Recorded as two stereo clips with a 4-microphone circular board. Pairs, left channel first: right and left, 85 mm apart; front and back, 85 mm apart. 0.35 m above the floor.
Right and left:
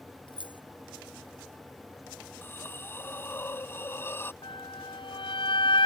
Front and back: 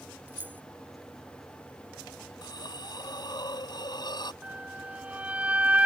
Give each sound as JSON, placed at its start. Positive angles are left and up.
{"t": 0.3, "sound": "keys jangling", "azimuth_deg": -110}
{"t": 2.4, "sound": "a hiss", "azimuth_deg": -30}
{"t": 4.4, "sound": "a flute", "azimuth_deg": -105}